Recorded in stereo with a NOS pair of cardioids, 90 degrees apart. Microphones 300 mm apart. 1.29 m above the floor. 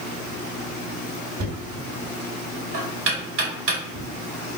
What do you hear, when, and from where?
1.4 s knocking: 45° right, 1.9 m